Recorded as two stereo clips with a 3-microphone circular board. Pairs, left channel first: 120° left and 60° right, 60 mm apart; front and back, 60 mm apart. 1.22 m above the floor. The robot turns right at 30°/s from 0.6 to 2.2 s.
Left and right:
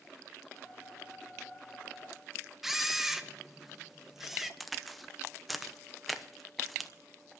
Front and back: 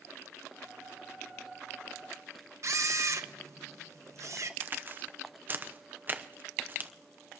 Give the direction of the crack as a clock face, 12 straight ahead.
5 o'clock.